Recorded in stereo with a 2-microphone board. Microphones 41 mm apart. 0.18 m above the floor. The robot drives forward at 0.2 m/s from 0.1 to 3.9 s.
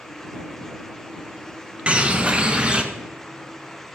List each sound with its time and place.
1.9 s a bird: 25° right (ahead or behind), 1.1 m